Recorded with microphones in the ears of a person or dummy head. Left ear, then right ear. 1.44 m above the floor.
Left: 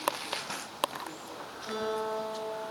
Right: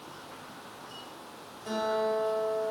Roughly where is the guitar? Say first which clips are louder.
Right 4 dB; right.